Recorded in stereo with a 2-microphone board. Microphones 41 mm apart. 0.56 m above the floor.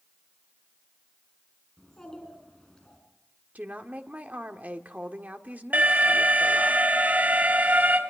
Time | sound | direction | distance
1.8 | a child speaking | 15° left (ahead or behind) | 4.5 m
3.5 | a woman speaking | 40° right (ahead or behind) | 1.5 m
5.7 | an alarm | 50° right (ahead or behind) | 3.5 m